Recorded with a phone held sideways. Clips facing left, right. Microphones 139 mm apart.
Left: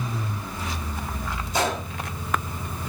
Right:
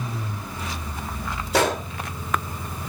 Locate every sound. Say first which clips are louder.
1.5 s a gunshot: right 4 dB; 80° right, 2.5 m